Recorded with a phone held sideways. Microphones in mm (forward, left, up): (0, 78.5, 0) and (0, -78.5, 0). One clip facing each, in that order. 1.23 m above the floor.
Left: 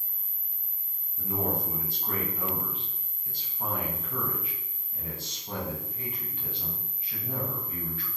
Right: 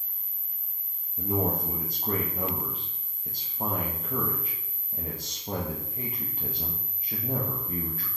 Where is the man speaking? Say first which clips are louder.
Right 3 dB; 40° right (ahead or behind), 1.1 m.